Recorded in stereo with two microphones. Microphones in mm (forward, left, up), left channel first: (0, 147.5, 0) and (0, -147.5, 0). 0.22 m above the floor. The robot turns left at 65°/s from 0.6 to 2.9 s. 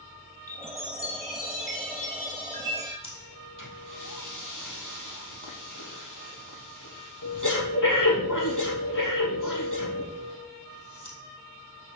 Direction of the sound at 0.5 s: 135° left.